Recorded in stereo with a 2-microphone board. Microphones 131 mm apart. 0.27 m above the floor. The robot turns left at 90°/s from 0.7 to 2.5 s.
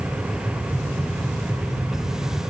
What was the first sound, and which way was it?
Only background noise.